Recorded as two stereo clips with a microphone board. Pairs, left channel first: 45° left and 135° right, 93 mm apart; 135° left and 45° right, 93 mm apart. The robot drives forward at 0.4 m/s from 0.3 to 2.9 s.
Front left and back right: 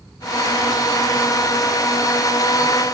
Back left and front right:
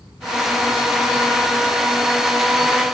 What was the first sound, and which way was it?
Only background noise.